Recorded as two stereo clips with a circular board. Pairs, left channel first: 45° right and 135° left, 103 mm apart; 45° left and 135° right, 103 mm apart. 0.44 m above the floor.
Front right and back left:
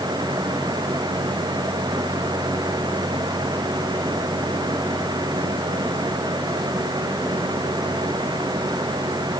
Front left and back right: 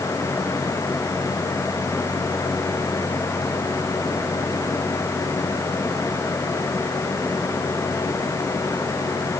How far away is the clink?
I don't hear a clink.